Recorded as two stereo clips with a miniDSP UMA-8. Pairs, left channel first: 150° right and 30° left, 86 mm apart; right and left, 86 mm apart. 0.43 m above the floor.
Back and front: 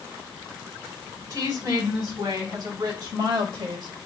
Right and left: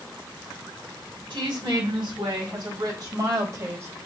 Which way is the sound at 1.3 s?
75° left.